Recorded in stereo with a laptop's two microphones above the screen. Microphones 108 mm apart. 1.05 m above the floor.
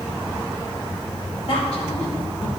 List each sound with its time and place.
1.5 s a woman speaking: 70° left (ahead or behind), 2 m; by 2.5 s 60° left (ahead or behind), 1.8 m